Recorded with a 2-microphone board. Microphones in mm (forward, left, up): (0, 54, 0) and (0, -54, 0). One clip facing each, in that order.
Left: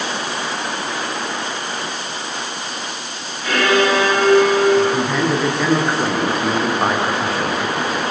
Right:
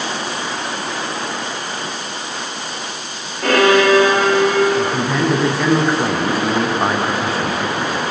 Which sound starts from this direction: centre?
A man speaking, at 4.8 s.